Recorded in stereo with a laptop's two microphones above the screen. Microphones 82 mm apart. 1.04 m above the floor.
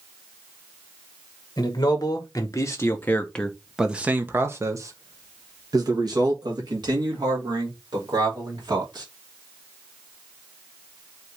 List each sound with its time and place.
1.6 s a man speaking: 55° left (ahead or behind), 1.2 m; by 9.1 s 65° right (ahead or behind), 3 m